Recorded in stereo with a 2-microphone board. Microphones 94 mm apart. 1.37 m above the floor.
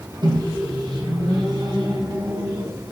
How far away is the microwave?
About 1.5 m.